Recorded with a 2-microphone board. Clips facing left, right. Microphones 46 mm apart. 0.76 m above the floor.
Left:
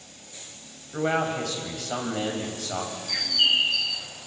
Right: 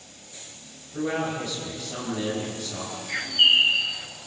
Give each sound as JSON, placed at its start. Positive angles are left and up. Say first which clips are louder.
{"t": 0.9, "sound": "a man speaking", "louder": "left 2 dB", "side_deg": 80, "distance_m": 5.0}
{"t": 3.1, "sound": "a bird", "louder": "right 4 dB", "side_deg": -30, "distance_m": 0.9}